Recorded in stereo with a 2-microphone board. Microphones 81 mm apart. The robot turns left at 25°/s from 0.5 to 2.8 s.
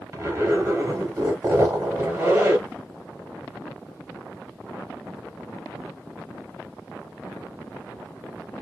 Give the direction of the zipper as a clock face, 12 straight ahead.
2 o'clock.